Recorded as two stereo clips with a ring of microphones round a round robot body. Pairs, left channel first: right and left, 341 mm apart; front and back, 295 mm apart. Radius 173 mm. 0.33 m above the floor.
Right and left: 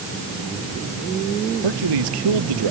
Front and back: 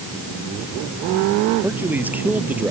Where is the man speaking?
95° left.